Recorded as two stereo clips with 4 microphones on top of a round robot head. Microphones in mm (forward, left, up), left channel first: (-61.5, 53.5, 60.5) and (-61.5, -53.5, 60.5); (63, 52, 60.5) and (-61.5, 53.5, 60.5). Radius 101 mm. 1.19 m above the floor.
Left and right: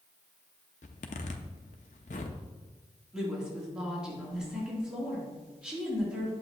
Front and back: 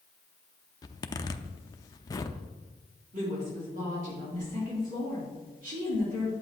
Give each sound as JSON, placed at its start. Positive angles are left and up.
{"t": 0.8, "sound": "a zipper", "azimuth_deg": 60, "distance_m": 0.6}
{"t": 3.1, "sound": "a woman speaking", "azimuth_deg": -175, "distance_m": 3.5}